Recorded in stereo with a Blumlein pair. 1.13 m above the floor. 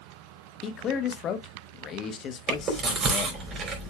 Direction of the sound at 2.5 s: 30° right.